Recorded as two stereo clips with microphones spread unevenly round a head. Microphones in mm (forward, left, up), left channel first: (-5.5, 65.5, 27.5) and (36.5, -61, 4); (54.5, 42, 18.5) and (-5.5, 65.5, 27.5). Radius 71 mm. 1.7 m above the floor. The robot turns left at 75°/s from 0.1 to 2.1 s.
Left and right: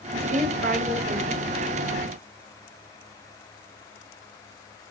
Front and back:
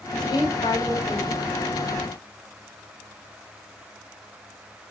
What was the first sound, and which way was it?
A woman speaking, 20° right.